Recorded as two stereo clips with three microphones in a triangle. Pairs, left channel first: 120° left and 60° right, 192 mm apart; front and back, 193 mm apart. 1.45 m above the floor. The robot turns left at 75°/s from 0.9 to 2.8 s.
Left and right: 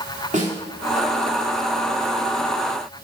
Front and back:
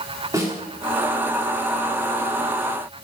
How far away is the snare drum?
About 2.5 m.